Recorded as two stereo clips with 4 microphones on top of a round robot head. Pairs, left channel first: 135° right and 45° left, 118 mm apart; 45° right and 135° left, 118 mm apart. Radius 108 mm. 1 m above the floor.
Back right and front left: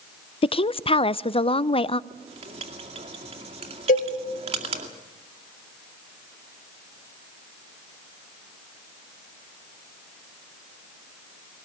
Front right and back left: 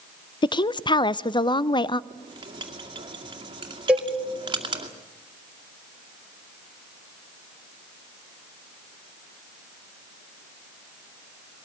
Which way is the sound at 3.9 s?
145° right.